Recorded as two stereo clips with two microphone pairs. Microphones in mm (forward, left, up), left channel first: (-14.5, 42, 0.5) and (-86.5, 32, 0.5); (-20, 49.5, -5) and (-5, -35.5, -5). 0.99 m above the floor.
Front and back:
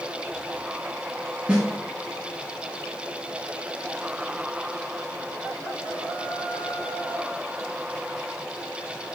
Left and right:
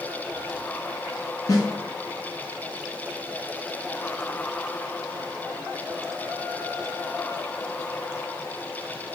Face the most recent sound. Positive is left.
turn(degrees=125)